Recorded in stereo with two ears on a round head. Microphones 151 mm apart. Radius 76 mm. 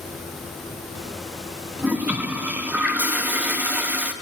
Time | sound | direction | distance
1.8 | a toilet flushing | 10° right (ahead or behind) | 1.0 m